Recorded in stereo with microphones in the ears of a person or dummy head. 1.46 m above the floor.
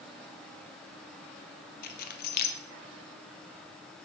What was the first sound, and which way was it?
Keys jangling, 55° left (ahead or behind).